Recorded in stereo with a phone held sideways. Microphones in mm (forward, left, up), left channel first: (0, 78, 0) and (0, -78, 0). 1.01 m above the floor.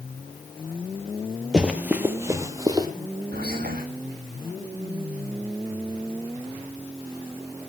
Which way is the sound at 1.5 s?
5° right (ahead or behind).